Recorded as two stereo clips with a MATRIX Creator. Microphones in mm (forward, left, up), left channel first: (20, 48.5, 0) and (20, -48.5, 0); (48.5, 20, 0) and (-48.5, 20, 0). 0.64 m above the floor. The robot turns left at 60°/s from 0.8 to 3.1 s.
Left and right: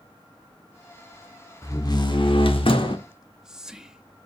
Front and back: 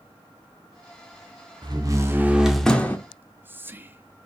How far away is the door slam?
About 1.1 m.